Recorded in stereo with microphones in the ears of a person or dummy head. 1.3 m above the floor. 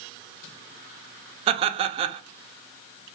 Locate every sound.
1.5 s laughter: 30° right (ahead or behind), 0.6 m